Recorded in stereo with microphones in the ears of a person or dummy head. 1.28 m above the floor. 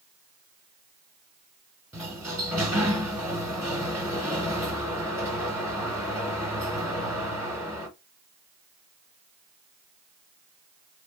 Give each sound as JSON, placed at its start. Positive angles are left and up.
{"t": 1.9, "sound": "a sliding door", "side_deg": -20, "distance_m": 1.9}